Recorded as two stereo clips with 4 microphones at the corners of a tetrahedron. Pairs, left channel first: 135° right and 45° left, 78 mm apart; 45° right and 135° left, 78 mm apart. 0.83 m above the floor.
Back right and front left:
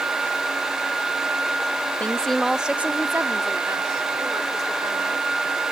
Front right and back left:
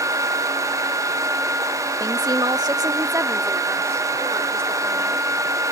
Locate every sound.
2.0 s a woman speaking: 160° left; by 5.3 s 75° left